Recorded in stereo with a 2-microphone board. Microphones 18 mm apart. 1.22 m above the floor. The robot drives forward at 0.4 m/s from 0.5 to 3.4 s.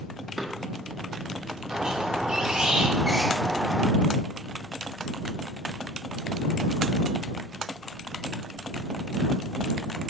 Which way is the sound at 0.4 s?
20° right (ahead or behind).